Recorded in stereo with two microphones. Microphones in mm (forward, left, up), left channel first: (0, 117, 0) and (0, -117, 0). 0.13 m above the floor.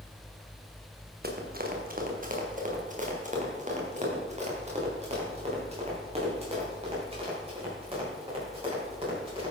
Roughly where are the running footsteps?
Right.